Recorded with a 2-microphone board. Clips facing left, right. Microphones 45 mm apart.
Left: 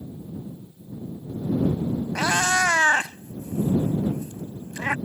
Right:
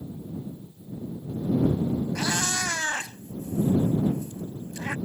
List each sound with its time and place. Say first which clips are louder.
2.1 s a cat meowing: left 7 dB; 45° left (ahead or behind)